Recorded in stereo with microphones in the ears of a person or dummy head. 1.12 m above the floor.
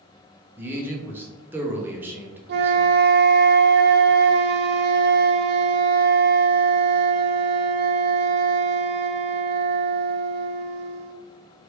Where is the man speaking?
15° right (ahead or behind), 0.8 m.